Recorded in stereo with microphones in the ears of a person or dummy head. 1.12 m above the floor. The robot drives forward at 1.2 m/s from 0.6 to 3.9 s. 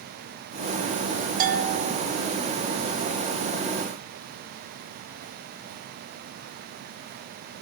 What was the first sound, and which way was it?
A bell, 40° right (ahead or behind).